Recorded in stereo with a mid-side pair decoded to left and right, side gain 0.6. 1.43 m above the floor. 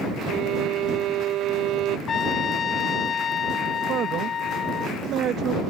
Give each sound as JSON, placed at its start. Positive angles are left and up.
{"t": 0.3, "sound": "a violin", "azimuth_deg": -60}
{"t": 2.1, "sound": "a trumpet", "azimuth_deg": 40}
{"t": 3.9, "sound": "a man speaking", "azimuth_deg": -55}